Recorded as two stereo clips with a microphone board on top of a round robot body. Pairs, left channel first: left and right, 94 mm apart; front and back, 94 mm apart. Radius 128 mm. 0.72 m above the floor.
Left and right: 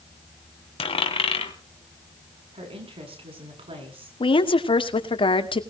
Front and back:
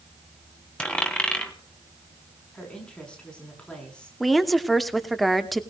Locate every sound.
0.8 s a dropped coin: 80° left, 3 m
2.5 s a woman speaking: 80° right, 8 m
4.2 s a woman speaking: 90° left, 2.5 m